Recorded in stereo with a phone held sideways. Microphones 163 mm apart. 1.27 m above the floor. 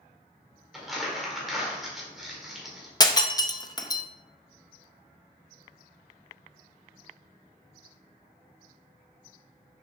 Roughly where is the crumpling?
Centre.